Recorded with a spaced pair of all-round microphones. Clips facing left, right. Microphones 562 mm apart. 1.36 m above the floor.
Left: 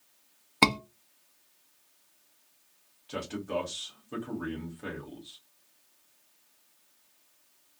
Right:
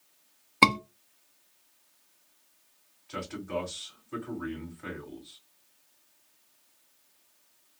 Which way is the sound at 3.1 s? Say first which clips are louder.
Left 1 dB; 55° left (ahead or behind).